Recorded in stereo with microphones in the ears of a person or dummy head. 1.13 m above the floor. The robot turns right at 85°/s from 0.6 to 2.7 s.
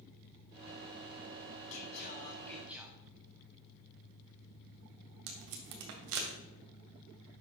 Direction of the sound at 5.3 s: 75° right (ahead or behind).